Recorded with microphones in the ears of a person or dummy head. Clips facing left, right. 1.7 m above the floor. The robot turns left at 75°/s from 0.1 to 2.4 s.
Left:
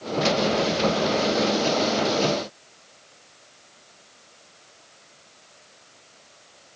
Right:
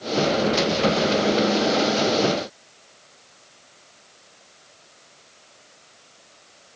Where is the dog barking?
I don't hear a dog barking.